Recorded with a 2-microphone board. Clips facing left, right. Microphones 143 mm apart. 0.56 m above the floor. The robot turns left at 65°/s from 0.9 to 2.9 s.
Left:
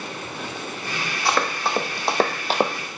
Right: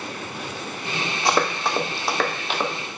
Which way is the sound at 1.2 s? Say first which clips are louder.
Right 1 dB; 20° right (ahead or behind).